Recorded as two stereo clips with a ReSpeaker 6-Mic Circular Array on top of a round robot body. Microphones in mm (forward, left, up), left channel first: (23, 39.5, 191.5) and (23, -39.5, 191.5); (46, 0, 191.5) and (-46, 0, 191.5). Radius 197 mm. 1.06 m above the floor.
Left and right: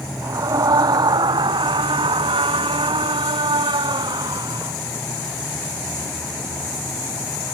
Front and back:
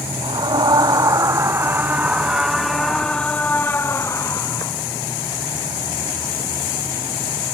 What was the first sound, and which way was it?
A scream, 140° right.